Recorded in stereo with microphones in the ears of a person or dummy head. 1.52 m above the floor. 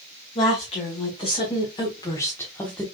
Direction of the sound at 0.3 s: 40° left (ahead or behind).